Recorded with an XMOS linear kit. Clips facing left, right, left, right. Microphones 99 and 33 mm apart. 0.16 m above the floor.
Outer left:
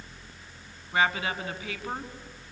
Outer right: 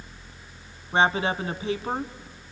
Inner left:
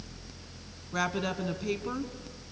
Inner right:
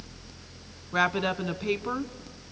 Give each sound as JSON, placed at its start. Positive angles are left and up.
{"t": 0.9, "sound": "a woman speaking", "side_deg": -35, "distance_m": 1.4}